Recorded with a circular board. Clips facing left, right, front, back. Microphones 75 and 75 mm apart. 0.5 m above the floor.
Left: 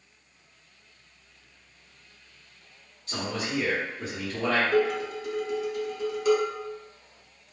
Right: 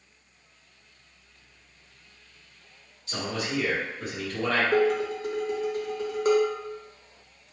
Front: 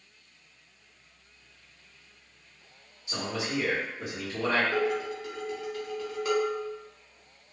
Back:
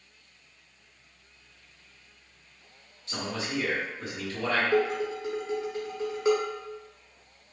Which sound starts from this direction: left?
A man speaking, at 3.1 s.